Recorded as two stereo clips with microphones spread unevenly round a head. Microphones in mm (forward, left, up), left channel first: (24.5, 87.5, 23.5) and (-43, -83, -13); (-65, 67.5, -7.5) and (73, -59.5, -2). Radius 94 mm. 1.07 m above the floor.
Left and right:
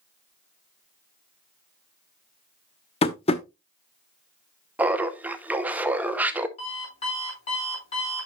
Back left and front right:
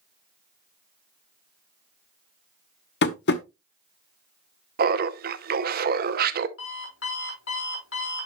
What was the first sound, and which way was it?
Tapping, 115° left.